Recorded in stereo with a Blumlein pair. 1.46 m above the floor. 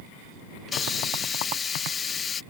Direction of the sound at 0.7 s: 20° left.